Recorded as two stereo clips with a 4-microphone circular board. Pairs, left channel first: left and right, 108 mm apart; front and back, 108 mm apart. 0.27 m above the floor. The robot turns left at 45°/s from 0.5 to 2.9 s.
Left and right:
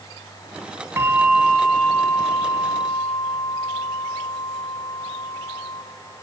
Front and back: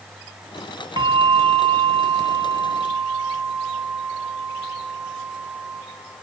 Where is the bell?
155° right, 1.0 m; by 5.8 s 120° left, 1.0 m.